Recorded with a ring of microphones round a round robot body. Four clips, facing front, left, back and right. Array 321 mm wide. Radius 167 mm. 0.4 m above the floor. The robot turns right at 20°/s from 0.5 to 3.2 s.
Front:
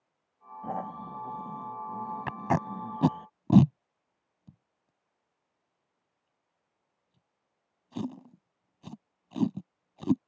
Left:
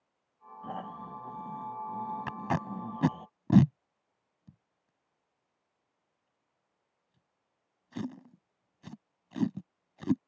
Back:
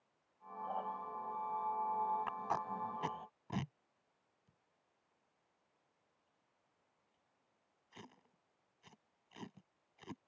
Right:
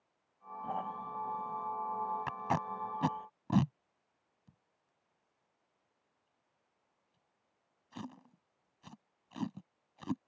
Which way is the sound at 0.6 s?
10° left.